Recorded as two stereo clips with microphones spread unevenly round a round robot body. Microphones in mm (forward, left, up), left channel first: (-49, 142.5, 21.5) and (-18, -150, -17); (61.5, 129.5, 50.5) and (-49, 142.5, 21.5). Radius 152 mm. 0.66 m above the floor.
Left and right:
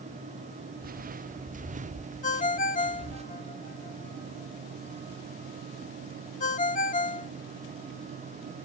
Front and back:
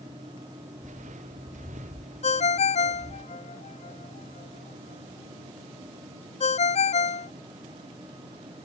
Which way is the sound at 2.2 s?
30° left.